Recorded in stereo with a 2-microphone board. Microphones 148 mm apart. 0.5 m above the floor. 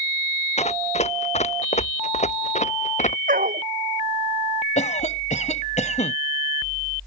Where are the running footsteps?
50° left (ahead or behind); by 3.2 s 55° left (ahead or behind).